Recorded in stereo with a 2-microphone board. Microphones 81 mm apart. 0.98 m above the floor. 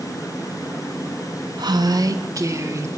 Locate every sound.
1.6 s a woman speaking: 65° right (ahead or behind), 1.4 m; by 2.9 s 35° right (ahead or behind), 3 m